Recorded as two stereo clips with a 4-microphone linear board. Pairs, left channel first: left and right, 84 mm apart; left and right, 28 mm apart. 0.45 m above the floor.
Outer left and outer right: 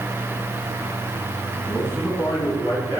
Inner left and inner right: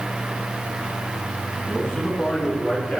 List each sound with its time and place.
1.7 s a man speaking: 50° left (ahead or behind), 3.5 m; by 3.0 s 65° left (ahead or behind), 4.5 m